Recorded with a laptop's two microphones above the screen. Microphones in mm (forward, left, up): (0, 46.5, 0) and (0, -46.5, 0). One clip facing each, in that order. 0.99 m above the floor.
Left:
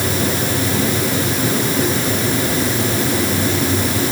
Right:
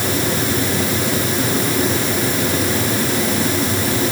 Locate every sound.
Only background noise.